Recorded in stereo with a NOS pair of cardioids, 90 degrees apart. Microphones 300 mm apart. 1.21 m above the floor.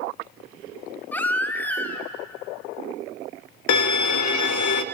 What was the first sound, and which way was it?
A baby crying, 5° left.